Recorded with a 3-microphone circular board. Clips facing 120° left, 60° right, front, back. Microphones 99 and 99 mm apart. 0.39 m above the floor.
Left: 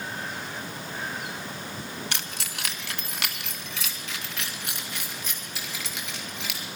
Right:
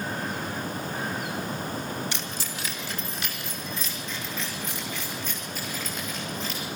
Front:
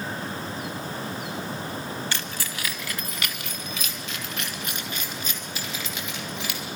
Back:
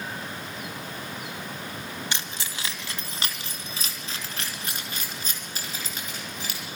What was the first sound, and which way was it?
Keys jangling, 110° left.